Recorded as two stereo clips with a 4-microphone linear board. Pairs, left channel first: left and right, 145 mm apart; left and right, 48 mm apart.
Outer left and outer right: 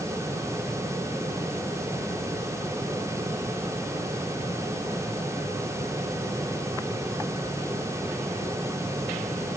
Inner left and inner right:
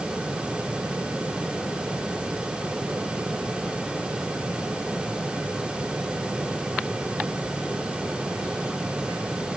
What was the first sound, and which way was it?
Only background noise.